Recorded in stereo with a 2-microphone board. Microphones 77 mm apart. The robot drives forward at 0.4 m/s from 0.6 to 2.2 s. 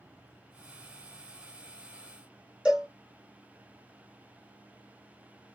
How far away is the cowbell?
About 1.6 m.